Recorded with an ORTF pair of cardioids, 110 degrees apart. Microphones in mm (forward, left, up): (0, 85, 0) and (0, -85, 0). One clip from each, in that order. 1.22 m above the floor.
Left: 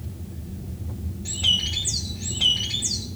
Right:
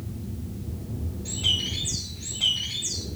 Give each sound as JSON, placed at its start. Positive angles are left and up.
{"t": 1.2, "sound": "a bird", "azimuth_deg": 30, "distance_m": 2.5}